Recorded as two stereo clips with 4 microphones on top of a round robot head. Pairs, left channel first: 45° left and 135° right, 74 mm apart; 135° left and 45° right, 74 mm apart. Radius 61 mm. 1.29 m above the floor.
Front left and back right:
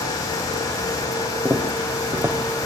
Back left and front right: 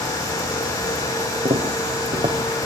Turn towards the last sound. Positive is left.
turn(degrees=-75)